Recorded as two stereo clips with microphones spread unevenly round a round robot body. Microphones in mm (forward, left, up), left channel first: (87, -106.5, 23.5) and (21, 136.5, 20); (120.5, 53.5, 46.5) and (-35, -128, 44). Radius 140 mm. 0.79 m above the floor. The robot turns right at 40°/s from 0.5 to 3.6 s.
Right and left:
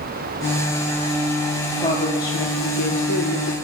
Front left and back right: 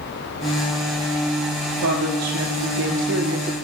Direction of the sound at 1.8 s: 150° right.